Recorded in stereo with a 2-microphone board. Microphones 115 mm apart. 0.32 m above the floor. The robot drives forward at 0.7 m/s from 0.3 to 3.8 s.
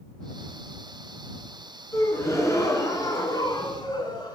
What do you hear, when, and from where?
1.9 s a gasp: 25° left (ahead or behind), 3 m; by 4.3 s 40° left (ahead or behind), 1.9 m